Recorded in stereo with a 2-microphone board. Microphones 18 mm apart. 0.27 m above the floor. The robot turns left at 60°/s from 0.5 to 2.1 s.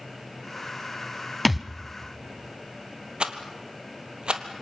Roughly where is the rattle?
Right.